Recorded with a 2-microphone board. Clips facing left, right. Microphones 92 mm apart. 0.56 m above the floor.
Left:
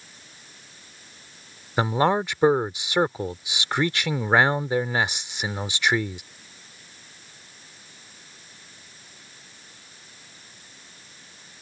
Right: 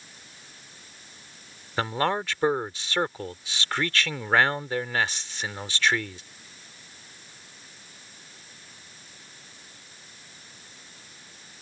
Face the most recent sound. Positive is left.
turn(degrees=15)  # may be behind; listen again after turning